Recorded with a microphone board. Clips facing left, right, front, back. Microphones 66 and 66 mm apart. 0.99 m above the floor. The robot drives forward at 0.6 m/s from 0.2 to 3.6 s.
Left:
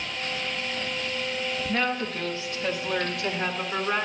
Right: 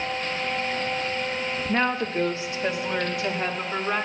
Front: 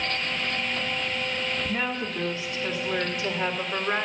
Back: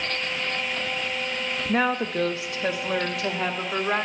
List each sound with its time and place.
1.7 s a woman speaking: 155° right, 1.0 m; by 4.1 s 170° right, 2 m